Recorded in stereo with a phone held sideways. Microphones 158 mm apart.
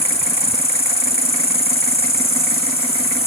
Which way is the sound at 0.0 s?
40° left (ahead or behind).